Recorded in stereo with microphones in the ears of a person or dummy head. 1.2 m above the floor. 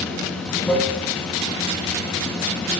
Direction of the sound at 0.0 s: 10° left (ahead or behind).